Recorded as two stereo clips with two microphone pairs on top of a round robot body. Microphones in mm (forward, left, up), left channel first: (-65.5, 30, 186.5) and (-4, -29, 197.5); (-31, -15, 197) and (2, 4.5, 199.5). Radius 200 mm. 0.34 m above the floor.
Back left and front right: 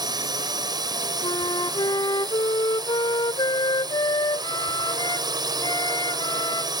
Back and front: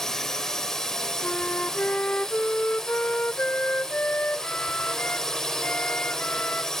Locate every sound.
0.0 s a drone: 75° right
1.2 s a flute: 165° left